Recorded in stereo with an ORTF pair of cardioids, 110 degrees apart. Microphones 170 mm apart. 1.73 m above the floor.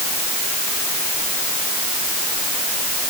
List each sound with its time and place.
Only background noise.